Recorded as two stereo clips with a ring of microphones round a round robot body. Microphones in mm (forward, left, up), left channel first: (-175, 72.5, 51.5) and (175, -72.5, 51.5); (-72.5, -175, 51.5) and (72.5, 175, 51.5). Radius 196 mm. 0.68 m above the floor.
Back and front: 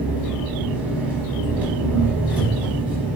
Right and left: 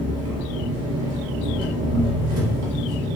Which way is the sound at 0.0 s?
60° left.